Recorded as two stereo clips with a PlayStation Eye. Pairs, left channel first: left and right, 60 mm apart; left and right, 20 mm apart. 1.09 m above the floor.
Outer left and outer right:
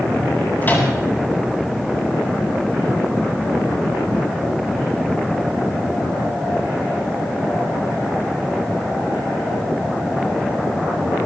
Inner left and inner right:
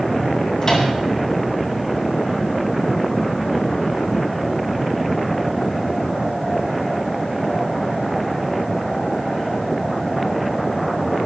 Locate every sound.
0.6 s a microwave: 35° left (ahead or behind), 8 m